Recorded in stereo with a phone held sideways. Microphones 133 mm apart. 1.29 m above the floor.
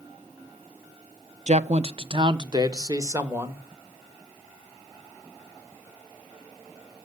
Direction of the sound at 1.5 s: 55° right (ahead or behind).